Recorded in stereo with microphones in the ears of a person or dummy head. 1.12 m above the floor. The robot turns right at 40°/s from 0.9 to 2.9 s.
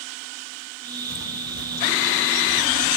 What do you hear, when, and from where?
1.1 s footsteps: 70° left (ahead or behind), 4.5 m; by 3.0 s 60° left (ahead or behind), 4.5 m